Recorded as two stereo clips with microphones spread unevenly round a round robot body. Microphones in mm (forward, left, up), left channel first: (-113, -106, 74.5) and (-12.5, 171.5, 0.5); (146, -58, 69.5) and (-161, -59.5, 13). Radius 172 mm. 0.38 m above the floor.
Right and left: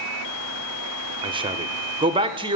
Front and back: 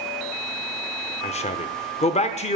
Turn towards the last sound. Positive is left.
turn(degrees=70)